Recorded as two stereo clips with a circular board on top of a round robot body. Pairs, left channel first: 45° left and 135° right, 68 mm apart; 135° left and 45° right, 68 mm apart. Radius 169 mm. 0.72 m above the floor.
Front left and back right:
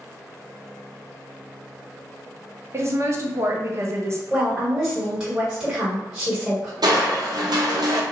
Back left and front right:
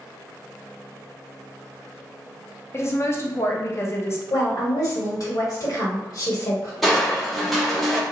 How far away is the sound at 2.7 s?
About 0.8 m.